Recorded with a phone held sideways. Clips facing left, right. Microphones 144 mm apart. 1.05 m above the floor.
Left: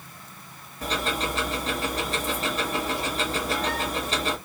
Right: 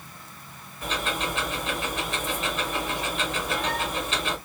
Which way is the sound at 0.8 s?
40° left (ahead or behind).